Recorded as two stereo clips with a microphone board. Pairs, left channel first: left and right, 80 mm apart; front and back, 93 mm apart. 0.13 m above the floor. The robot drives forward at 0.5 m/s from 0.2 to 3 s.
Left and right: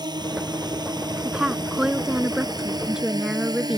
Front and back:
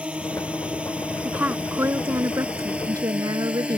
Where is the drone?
105° right.